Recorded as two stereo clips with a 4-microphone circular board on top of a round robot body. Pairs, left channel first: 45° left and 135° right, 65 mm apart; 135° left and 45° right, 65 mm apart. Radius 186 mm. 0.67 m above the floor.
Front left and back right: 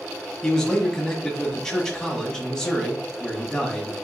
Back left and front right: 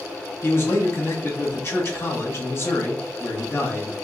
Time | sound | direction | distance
0.4 | a man speaking | 120° left | 1.5 m